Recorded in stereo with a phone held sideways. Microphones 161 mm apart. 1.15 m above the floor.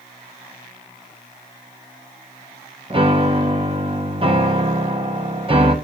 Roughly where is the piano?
Right.